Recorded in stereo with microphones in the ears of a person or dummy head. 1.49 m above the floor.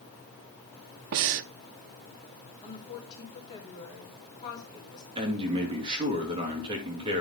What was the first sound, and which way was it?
Breathing, 65° right (ahead or behind).